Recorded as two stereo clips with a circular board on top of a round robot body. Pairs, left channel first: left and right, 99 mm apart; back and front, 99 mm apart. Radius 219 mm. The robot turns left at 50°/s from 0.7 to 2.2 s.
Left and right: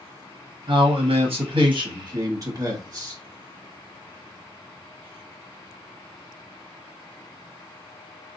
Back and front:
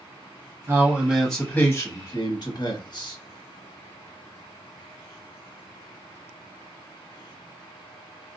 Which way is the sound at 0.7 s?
65° right.